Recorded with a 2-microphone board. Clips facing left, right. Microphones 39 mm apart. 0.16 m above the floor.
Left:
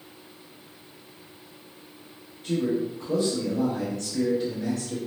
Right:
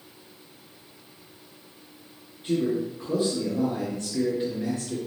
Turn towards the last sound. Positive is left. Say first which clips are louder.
# even
turn(degrees=-20)  # may be behind; listen again after turning